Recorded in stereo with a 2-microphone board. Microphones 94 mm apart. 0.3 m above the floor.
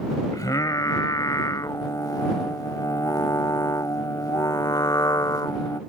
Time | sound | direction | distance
0.3 | singing | 40° left (ahead or behind) | ?